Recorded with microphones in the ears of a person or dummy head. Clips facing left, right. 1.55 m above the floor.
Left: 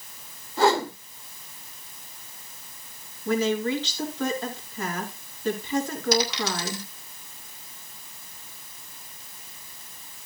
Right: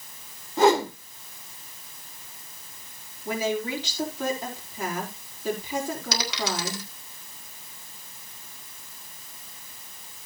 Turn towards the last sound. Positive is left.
turn(degrees=-60)  # may be behind; listen again after turning